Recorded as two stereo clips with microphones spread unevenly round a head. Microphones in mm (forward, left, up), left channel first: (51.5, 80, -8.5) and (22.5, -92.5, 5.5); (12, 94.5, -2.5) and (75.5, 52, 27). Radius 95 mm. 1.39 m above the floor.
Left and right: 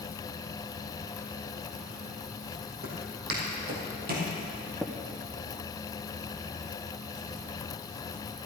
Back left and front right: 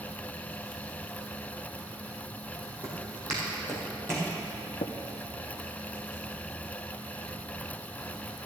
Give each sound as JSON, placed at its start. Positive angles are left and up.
{"t": 2.8, "sound": "footsteps", "azimuth_deg": -75, "distance_m": 3.5}
{"t": 4.8, "sound": "tapping", "azimuth_deg": 175, "distance_m": 0.6}